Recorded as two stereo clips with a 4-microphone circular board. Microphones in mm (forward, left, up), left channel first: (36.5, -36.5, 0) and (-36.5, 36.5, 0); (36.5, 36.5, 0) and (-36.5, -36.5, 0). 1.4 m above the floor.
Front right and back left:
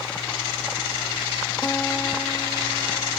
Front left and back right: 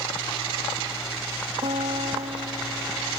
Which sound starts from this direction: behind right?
A guitar, at 1.6 s.